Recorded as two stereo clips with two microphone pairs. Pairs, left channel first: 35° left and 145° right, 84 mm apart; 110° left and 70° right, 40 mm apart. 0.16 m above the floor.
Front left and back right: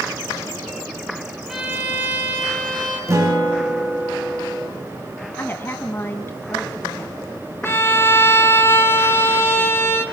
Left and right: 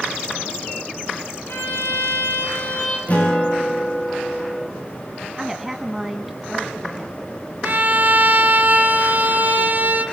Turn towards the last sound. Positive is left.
turn(degrees=-25)